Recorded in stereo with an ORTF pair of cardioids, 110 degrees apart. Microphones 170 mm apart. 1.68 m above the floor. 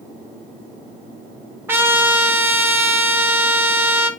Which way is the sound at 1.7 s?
10° right.